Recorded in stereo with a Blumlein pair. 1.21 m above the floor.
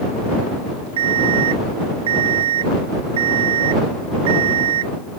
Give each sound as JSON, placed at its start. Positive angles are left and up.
{"t": 1.0, "sound": "an alarm clock", "azimuth_deg": -60}